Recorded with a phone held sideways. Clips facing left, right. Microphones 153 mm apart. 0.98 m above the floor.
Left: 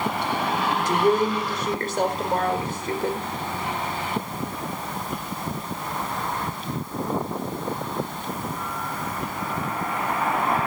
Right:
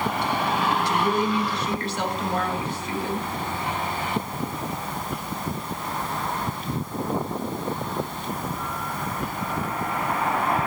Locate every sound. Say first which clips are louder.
0.8 s a woman speaking: left 3 dB; 50° left (ahead or behind), 4 m